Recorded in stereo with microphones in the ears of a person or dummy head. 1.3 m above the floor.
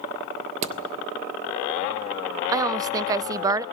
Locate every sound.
0.6 s hammering: 40° right (ahead or behind), 1.3 m
2.5 s a woman speaking: 20° right (ahead or behind), 0.6 m